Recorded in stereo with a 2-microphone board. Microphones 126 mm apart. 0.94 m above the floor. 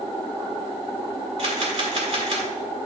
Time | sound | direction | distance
1.4 | a camera shutter | 60° right (ahead or behind) | 2.5 m